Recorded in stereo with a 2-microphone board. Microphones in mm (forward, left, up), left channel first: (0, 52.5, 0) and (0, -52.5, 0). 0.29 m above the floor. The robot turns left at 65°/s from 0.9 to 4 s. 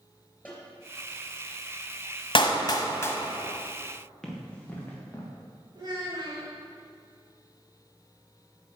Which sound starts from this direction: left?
A clap, at 2.4 s.